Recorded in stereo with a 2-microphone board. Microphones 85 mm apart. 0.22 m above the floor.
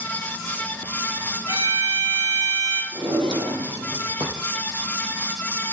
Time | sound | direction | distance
1.5 | a violin | 50° right (ahead or behind) | 2 m
2.9 | a drawer | 65° right (ahead or behind) | 2.5 m